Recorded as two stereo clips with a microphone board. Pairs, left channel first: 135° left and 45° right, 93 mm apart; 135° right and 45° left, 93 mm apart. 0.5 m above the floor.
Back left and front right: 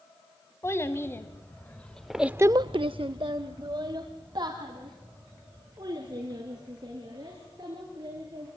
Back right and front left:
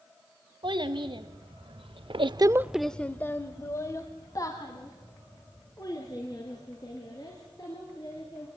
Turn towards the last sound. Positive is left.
turn(degrees=-90)